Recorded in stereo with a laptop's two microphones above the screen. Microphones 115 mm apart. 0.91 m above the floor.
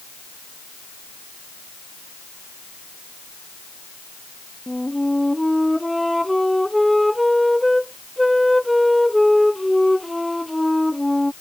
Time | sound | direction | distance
4.7 | a flute | centre (ahead or behind) | ?